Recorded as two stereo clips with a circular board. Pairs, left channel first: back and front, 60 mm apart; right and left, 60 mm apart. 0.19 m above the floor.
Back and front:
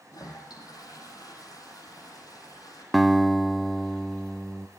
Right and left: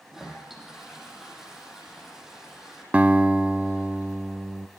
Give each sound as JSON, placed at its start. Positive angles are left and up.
{"t": 0.1, "sound": "a toilet flushing", "azimuth_deg": 170, "distance_m": 5.5}
{"t": 2.9, "sound": "a guitar", "azimuth_deg": 90, "distance_m": 0.9}